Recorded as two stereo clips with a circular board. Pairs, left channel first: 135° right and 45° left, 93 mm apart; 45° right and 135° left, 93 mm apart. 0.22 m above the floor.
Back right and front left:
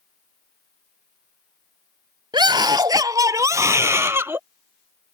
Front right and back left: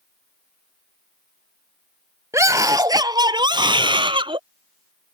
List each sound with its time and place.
2.3 s a scream: 80° left; by 4.4 s 110° left